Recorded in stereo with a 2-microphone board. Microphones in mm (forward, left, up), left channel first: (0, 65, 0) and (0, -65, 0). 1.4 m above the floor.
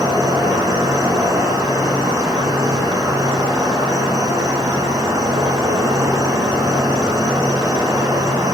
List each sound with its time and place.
0.0 s an insect: 25° right (ahead or behind), 1.1 m